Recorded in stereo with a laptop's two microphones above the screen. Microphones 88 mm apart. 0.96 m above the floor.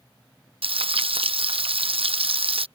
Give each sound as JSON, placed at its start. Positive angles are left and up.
{"t": 0.6, "sound": "frying", "side_deg": -80}